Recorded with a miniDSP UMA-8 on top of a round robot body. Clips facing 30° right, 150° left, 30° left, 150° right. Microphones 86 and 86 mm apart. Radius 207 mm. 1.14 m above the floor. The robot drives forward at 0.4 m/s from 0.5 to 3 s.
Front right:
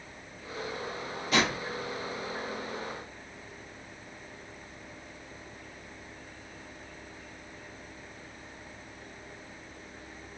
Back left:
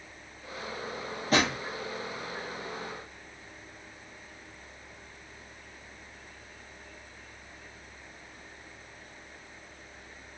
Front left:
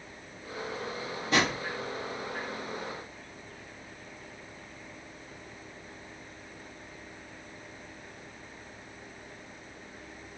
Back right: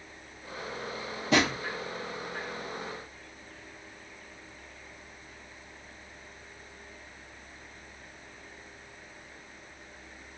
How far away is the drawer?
About 0.8 m.